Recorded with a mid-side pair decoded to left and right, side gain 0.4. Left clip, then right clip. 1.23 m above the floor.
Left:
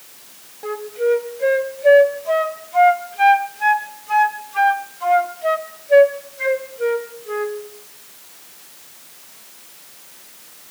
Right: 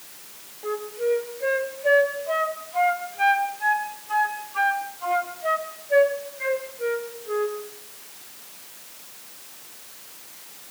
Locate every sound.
0.6 s a flute: 50° left, 3 m